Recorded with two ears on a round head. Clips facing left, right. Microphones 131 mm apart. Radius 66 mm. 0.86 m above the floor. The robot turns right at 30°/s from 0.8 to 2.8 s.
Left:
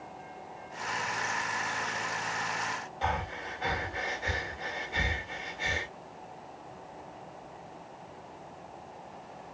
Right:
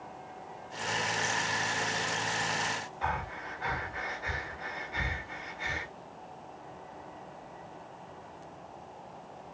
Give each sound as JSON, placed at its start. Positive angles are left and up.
{"t": 3.0, "sound": "breathing", "side_deg": 30, "distance_m": 3.5}